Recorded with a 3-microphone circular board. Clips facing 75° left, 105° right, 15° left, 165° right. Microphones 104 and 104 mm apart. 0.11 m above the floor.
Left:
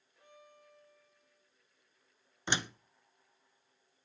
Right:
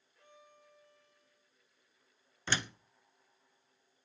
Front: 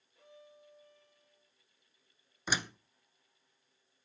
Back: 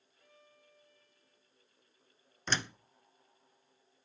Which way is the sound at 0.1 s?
Straight ahead.